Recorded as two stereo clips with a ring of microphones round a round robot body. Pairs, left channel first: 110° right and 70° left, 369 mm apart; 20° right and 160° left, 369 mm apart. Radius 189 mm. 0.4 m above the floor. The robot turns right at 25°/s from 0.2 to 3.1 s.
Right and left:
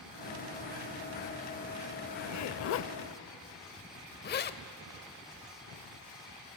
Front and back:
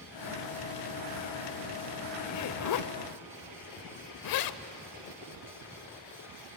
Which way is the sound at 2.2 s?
75° right.